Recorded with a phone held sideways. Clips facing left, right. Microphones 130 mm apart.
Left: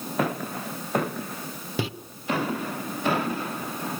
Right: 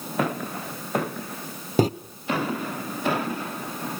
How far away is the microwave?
About 0.7 m.